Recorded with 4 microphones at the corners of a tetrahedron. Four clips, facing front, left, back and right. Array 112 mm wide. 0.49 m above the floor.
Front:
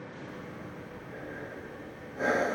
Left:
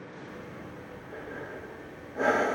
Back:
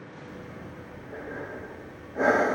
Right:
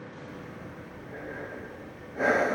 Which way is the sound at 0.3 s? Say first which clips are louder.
Even, back 1 dB; 170° left.